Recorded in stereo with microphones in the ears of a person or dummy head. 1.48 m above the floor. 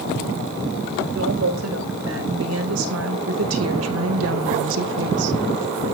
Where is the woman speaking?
65° right (ahead or behind), 4 m.